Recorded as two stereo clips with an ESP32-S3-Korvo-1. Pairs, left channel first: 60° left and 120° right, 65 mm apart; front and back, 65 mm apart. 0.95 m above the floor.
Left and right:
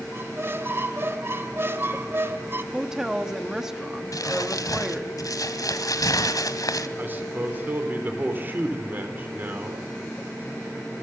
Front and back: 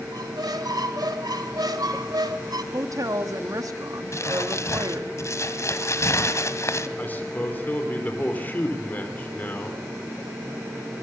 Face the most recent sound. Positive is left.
turn(degrees=-60)